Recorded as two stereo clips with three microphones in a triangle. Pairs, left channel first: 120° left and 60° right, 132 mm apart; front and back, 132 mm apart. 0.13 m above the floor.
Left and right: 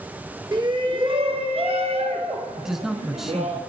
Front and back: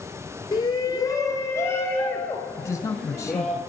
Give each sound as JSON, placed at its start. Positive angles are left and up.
{"t": 0.5, "sound": "a shout", "azimuth_deg": -35, "distance_m": 1.5}
{"t": 2.6, "sound": "a man speaking", "azimuth_deg": 25, "distance_m": 1.2}